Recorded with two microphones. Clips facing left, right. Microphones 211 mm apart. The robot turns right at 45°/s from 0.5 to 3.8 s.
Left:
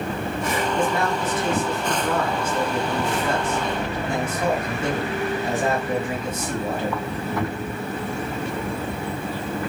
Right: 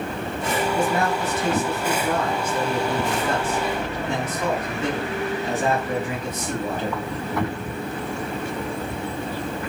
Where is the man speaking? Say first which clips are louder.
Even; 105° right, 3 m; by 7.0 s 35° left, 3 m.